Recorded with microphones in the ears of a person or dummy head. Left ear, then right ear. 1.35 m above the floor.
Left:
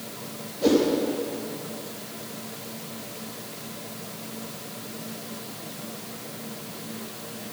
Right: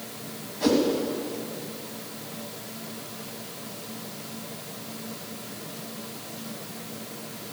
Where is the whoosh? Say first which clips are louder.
Left 2 dB; 60° right (ahead or behind), 2.5 m.